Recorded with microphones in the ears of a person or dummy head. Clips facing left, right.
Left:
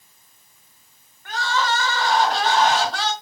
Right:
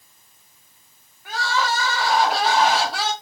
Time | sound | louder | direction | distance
1.2 | crying | even | 10° right (ahead or behind) | 0.9 m